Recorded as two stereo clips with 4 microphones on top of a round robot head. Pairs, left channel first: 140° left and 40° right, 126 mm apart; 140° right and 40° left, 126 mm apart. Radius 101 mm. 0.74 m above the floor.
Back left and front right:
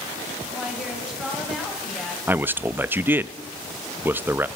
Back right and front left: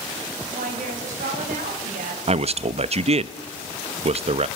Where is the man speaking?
30° left, 0.7 m.